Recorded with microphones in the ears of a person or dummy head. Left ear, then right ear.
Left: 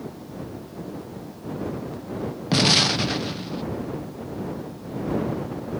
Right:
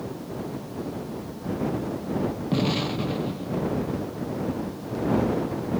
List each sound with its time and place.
2.5 s an explosion: 70° left (ahead or behind)